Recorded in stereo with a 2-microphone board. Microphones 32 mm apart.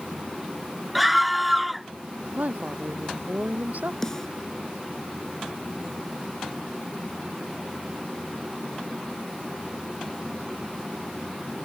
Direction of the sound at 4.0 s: 20° left (ahead or behind).